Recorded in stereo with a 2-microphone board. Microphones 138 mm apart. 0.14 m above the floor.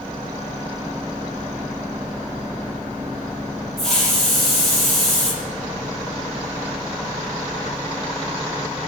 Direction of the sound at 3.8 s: Centre (ahead or behind).